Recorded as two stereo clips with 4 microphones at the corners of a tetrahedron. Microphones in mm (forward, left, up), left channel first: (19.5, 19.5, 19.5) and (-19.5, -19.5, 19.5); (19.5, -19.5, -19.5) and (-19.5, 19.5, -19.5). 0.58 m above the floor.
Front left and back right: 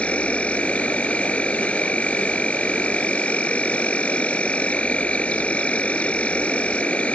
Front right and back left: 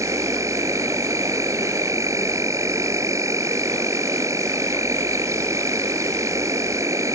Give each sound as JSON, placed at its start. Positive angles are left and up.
{"t": 0.0, "sound": "an insect", "azimuth_deg": 115}